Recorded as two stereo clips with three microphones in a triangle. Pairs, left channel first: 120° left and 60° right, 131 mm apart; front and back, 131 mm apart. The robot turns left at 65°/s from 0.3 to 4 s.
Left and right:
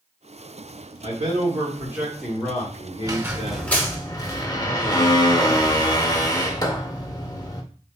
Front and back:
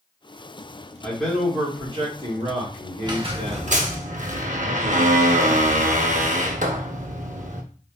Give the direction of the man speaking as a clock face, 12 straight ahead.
2 o'clock.